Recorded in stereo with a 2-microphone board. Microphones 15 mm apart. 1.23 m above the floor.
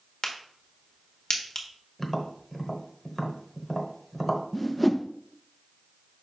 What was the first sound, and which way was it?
A crack, 45° left (ahead or behind).